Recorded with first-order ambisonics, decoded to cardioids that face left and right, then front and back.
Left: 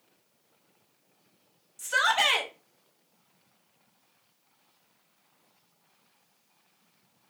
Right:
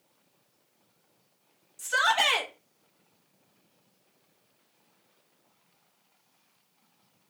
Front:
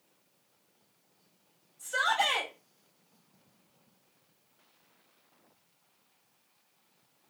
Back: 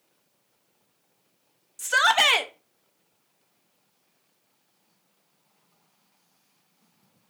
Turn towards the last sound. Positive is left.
turn(degrees=180)